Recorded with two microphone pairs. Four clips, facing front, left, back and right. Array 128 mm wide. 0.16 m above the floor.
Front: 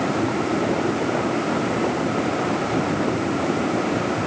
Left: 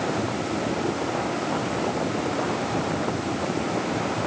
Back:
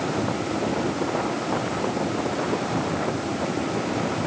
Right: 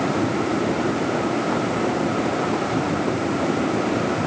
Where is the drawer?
No drawer in this recording.